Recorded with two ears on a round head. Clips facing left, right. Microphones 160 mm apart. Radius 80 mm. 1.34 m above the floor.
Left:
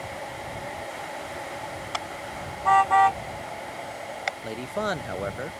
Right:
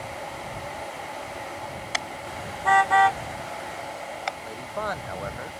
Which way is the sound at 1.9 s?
20° right (ahead or behind).